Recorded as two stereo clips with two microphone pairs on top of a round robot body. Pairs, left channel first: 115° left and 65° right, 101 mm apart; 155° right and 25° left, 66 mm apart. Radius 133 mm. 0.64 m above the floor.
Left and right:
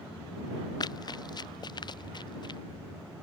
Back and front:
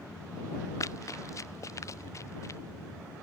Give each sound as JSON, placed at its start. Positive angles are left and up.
{"t": 0.8, "sound": "running footsteps", "azimuth_deg": 160}